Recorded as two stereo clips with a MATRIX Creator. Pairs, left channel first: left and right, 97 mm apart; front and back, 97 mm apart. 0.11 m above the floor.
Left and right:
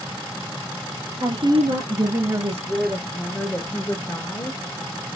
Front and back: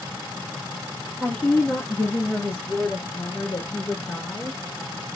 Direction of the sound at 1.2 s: 70° right.